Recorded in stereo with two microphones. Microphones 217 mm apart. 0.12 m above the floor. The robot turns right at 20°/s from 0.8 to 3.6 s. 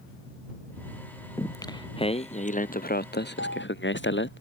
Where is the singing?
10° left; by 4.4 s 55° left.